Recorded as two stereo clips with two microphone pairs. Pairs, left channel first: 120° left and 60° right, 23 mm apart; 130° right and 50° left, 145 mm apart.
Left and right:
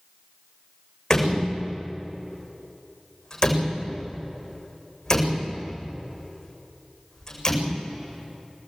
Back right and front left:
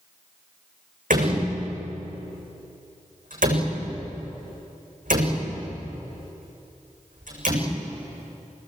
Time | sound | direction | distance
1.1 | a door slam | 60° left | 8 m